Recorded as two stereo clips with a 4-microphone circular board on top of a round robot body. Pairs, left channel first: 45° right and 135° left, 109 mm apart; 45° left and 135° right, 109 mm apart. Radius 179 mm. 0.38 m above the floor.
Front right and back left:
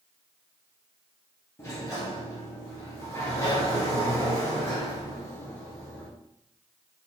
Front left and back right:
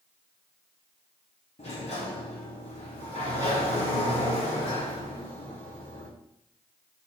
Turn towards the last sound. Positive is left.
turn(degrees=20)